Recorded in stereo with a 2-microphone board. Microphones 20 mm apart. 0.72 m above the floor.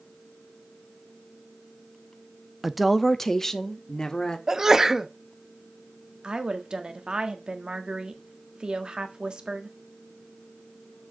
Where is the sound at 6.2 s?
50° right (ahead or behind), 1.3 m.